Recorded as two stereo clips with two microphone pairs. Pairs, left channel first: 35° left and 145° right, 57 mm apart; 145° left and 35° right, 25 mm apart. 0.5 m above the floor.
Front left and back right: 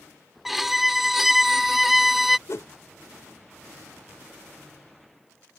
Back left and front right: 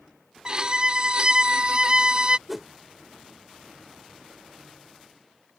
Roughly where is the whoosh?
Ahead left.